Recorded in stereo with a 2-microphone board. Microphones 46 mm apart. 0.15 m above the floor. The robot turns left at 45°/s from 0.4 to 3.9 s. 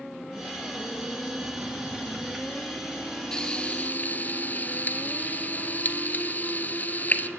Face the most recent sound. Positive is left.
turn(degrees=40)  # may be behind; listen again after turning